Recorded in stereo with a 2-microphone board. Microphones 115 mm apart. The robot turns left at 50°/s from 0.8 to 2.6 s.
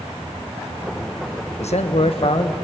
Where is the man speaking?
90° left, 1.2 m; by 2.5 s 45° left, 1.2 m.